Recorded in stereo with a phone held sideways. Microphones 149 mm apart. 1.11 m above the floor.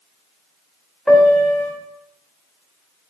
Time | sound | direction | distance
1.1 | a piano | 5° left (ahead or behind) | 3 m